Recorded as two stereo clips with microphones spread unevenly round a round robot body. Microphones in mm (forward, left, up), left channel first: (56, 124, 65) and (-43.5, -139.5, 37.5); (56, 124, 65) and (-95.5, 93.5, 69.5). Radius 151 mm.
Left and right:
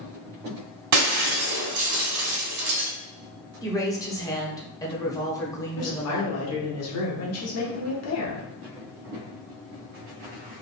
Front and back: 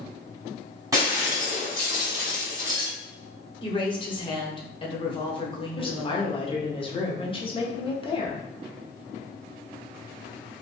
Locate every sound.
0.9 s breaking glass: 95° right, 1.3 m
3.6 s a woman speaking: 10° right, 0.9 m
5.8 s a woman speaking: 55° left, 1.1 m